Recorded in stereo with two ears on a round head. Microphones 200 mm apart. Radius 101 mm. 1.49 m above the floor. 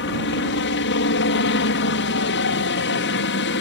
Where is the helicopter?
55° left (ahead or behind).